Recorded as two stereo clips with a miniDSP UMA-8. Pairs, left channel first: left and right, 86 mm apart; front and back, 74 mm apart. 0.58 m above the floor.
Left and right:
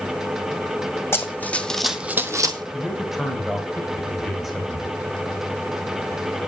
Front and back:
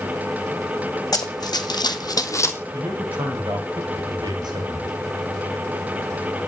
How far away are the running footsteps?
About 1.9 m.